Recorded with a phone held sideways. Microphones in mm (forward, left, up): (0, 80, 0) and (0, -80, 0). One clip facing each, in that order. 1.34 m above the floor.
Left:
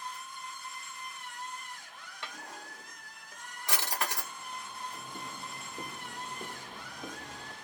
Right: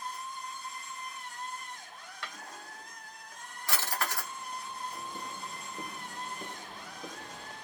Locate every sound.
0.0 s a machine running: 40° right (ahead or behind), 1.2 m
2.2 s a drawer: 20° left (ahead or behind), 1.0 m
4.9 s footsteps: 5° right (ahead or behind), 1.4 m; by 7.5 s 15° left (ahead or behind), 1.6 m